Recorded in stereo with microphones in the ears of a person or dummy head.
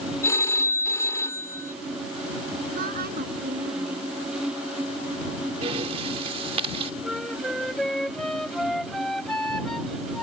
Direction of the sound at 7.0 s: 5° left (ahead or behind).